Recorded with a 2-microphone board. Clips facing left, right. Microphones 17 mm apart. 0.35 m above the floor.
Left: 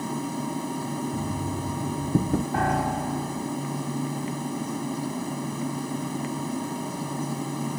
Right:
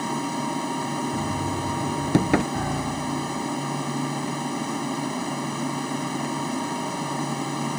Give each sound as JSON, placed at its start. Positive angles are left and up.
{"t": 0.0, "sound": "an aircraft", "side_deg": -25}
{"t": 1.1, "sound": "knocking", "side_deg": -75}
{"t": 2.5, "sound": "a piano", "side_deg": 40}